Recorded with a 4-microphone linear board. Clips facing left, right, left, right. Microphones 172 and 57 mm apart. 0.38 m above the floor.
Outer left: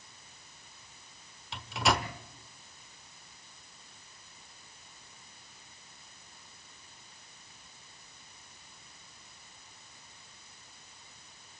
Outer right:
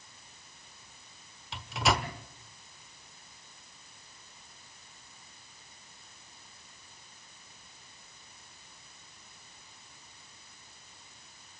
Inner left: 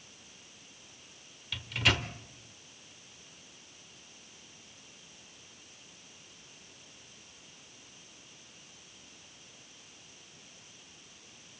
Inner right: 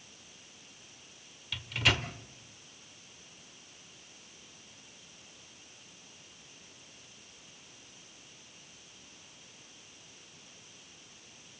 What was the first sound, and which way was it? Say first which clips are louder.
A microwave: even, even; centre (ahead or behind).